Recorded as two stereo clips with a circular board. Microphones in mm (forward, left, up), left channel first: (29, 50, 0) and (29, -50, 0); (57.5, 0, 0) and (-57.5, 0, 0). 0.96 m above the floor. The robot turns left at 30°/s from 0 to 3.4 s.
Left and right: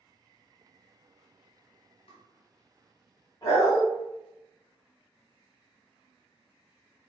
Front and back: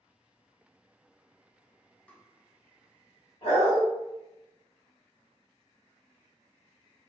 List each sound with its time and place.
2.1 s tapping: 80° left, 0.7 m; by 2.2 s 75° left, 0.7 m
3.4 s a dog barking: 35° left, 1.5 m